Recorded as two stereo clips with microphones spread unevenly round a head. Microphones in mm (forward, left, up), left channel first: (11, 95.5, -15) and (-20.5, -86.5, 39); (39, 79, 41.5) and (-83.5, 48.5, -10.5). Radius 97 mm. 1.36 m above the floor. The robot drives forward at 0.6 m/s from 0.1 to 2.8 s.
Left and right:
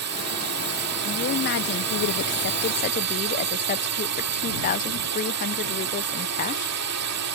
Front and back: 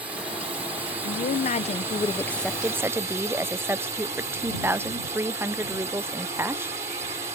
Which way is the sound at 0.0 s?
90° right.